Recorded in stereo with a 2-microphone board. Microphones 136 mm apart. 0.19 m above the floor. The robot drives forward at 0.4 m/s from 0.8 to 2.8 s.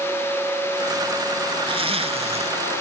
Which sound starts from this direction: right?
A zipper, at 1.7 s.